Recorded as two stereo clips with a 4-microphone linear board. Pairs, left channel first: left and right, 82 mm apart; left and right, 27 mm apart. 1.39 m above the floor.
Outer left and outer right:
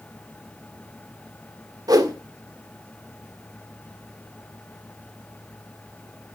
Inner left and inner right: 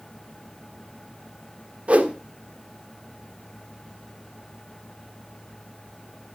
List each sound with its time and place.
1.9 s a whoosh: 50° right (ahead or behind), 1.4 m